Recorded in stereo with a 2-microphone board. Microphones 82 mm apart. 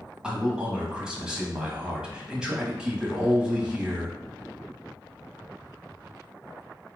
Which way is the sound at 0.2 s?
10° right (ahead or behind).